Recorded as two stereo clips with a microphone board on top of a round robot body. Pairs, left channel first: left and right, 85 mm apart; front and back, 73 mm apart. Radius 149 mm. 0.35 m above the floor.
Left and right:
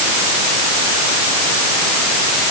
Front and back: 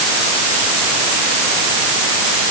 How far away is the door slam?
No door slam in this recording.